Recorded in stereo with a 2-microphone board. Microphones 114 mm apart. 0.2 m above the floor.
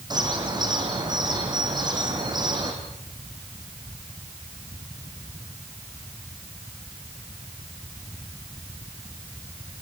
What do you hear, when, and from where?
0.1 s a bird: 35° right (ahead or behind), 4.5 m